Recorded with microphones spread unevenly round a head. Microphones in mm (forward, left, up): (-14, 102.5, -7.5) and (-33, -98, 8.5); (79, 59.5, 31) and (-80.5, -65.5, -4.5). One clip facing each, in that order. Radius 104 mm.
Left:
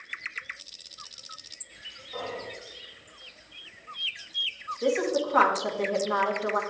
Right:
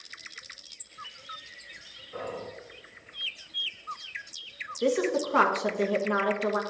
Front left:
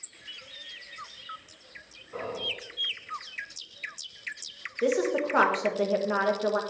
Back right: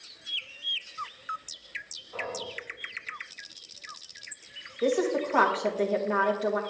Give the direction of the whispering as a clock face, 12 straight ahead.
1 o'clock.